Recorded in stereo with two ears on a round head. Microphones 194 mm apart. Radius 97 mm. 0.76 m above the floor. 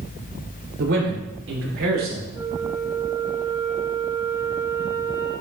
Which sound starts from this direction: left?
A flute, at 2.3 s.